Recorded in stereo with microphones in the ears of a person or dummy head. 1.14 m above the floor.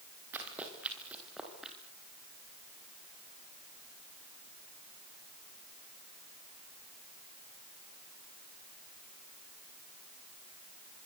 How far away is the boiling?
No boiling in this recording.